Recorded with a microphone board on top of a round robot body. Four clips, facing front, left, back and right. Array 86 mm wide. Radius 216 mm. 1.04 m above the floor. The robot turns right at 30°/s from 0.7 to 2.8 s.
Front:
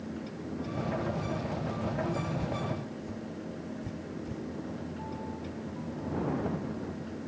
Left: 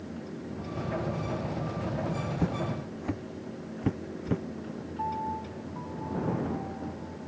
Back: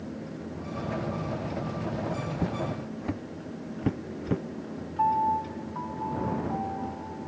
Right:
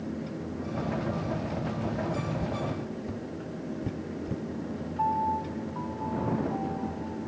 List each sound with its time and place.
2.4 s footsteps: 130° left; by 4.4 s 145° left
5.0 s a piano: 165° right